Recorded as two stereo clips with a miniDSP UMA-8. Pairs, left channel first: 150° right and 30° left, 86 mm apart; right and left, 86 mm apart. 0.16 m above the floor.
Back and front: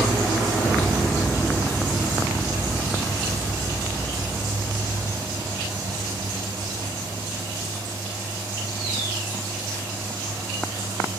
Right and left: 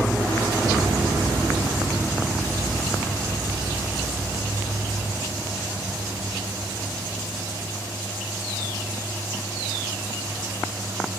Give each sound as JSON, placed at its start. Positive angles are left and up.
{"t": 0.6, "sound": "a piano", "azimuth_deg": 140, "distance_m": 2.0}